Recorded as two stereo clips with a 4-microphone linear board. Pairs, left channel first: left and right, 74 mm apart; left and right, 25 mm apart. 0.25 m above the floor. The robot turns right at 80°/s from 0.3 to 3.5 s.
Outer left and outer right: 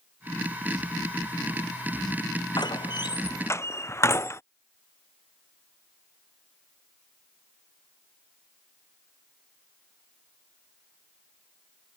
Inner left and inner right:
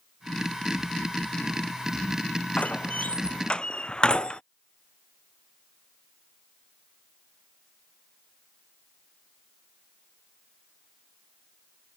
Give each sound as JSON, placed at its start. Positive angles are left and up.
{"t": 2.6, "sound": "a door slam", "side_deg": 65}